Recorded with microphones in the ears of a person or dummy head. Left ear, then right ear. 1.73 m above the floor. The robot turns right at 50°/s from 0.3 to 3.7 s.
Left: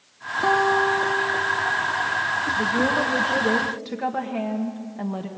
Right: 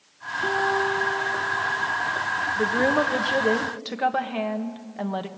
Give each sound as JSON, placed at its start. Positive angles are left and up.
{"t": 0.4, "sound": "a guitar", "azimuth_deg": 115, "distance_m": 3.5}
{"t": 2.6, "sound": "a woman speaking", "azimuth_deg": -80, "distance_m": 1.5}